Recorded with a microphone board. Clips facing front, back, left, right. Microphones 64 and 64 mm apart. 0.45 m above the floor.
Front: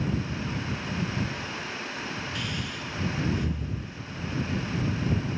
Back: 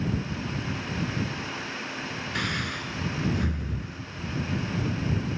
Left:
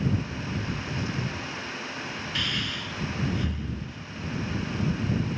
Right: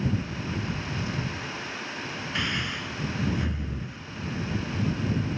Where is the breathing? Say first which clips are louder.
Back 4 dB, right 2 dB; 155° right.